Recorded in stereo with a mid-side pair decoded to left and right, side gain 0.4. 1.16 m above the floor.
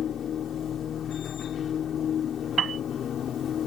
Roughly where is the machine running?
Ahead left.